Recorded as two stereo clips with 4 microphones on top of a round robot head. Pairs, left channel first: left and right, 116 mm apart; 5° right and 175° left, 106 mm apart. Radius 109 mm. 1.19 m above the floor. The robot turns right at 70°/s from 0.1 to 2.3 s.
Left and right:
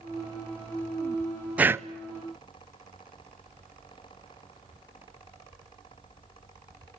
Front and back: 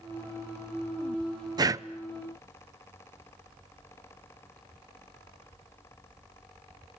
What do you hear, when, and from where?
1.6 s breathing: 165° right, 0.8 m; by 1.9 s 145° right, 0.8 m